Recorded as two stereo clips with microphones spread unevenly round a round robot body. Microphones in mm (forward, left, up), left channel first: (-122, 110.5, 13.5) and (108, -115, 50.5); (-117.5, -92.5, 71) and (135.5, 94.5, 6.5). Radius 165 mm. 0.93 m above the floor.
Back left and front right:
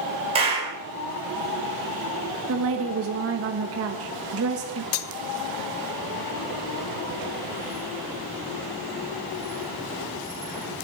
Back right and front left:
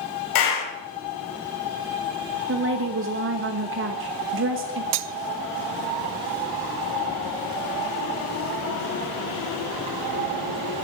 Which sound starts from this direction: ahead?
A woman speaking, at 2.5 s.